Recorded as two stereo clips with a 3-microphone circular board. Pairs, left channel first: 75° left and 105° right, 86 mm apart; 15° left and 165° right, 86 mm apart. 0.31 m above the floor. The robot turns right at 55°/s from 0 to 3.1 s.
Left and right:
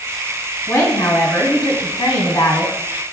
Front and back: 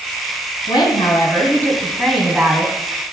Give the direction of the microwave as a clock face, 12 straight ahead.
No microwave in this recording.